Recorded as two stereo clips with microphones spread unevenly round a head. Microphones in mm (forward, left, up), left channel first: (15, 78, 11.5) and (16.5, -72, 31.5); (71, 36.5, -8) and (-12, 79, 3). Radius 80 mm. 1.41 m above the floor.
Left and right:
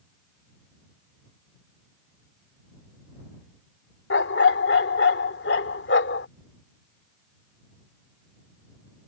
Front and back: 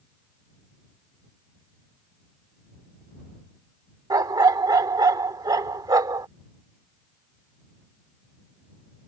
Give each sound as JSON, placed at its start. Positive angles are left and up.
{"t": 4.1, "sound": "a dog barking", "azimuth_deg": 115}